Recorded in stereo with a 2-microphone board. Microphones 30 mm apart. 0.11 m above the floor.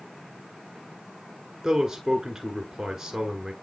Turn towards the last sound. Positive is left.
turn(degrees=-15)  # may be behind; listen again after turning